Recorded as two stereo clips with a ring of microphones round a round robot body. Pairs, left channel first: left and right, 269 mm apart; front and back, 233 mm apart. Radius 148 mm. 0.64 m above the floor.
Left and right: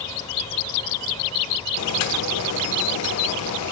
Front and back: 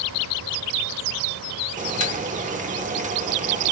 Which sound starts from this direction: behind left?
Boiling, at 1.8 s.